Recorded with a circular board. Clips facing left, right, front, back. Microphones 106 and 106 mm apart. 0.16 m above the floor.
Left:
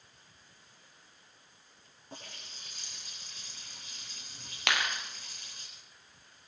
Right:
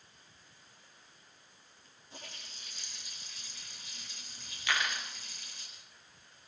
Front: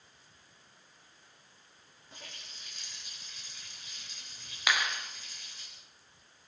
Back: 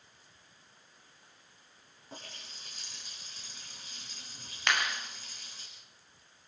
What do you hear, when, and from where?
2.1 s a running tap: 130° left, 8 m
4.7 s a clap: 85° left, 3 m